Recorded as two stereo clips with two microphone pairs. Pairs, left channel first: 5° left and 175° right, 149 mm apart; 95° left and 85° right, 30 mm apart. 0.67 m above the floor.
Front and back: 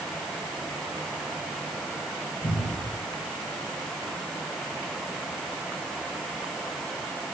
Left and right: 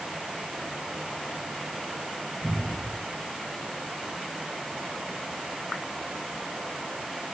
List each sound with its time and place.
2.4 s a cupboard door: 25° right, 8.5 m